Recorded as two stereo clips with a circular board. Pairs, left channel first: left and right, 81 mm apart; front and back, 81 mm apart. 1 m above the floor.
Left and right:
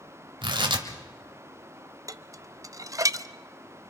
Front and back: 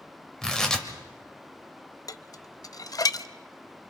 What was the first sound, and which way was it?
Tearing paper, 80° right.